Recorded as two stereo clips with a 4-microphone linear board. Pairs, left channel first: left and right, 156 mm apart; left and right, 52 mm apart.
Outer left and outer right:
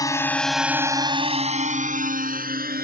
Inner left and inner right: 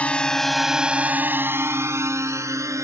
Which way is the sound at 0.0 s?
25° left (ahead or behind).